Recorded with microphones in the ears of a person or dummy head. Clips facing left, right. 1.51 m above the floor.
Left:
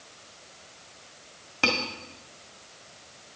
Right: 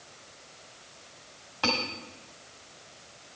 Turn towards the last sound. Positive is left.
turn(degrees=35)  # may be behind; listen again after turning